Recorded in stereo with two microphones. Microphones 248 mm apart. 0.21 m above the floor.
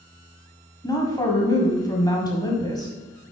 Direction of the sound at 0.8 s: 15° left (ahead or behind).